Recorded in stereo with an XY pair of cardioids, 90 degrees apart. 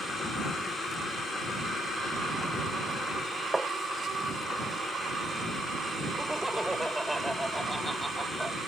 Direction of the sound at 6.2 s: 5° right.